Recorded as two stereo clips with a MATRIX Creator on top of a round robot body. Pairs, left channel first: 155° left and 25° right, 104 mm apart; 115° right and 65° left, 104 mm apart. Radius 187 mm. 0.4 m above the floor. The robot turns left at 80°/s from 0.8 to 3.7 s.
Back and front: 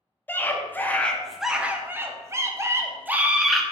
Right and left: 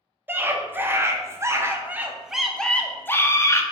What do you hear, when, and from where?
0.3 s a scream: 110° left, 0.8 m; by 3.6 s 115° right, 0.8 m